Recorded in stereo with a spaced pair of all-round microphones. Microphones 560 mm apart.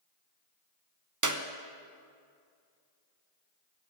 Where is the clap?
35° right (ahead or behind), 0.8 m.